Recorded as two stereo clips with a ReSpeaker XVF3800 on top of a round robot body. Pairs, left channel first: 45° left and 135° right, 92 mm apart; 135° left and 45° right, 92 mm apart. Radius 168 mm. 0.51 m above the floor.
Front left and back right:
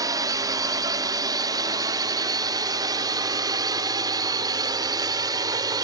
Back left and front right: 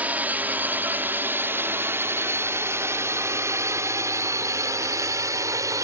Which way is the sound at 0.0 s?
110° right.